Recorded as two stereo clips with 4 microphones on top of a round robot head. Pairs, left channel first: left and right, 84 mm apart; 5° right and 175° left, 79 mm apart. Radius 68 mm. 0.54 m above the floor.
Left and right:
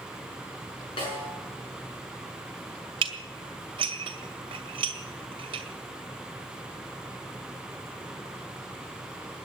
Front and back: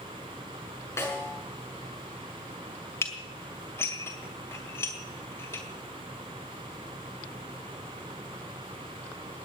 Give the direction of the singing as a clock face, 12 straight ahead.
No singing in this recording.